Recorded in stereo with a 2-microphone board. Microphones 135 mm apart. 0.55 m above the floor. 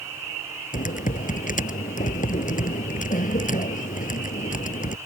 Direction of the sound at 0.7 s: 80° left.